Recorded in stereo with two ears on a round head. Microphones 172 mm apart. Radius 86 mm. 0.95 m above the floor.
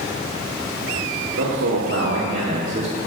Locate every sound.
1.4 s a man speaking: 70° right (ahead or behind), 2.5 m; by 3.0 s 25° right (ahead or behind), 1.4 m